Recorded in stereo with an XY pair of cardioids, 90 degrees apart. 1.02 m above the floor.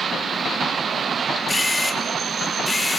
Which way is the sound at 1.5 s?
20° left.